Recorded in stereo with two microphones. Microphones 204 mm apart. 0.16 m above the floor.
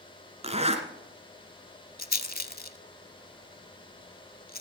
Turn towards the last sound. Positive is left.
turn(degrees=45)  # may be behind; listen again after turning